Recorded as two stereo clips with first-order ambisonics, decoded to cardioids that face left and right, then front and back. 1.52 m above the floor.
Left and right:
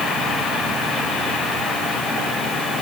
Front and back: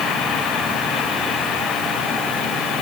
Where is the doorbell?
I don't hear a doorbell.